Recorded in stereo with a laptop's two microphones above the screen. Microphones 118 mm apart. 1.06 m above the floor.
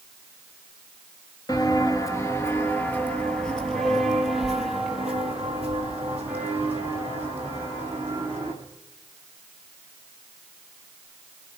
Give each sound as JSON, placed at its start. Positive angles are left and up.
{"t": 1.5, "sound": "footsteps", "side_deg": 35, "distance_m": 1.2}